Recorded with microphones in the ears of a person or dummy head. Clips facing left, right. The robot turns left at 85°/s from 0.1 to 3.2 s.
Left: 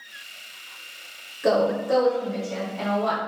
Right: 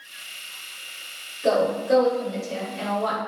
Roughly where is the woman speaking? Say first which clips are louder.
Even; ahead.